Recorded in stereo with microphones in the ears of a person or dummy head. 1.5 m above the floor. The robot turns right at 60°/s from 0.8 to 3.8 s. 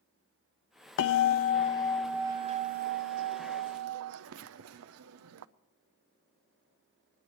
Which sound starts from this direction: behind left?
A bell, at 1.0 s.